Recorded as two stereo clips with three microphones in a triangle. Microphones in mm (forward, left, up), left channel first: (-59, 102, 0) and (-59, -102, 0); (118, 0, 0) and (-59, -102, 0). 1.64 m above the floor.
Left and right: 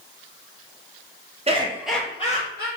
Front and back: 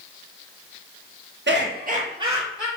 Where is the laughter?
145° right, 0.8 m; by 2.7 s 120° left, 0.9 m.